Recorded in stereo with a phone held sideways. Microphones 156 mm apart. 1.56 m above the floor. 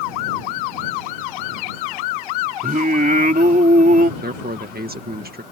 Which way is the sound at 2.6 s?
65° right (ahead or behind).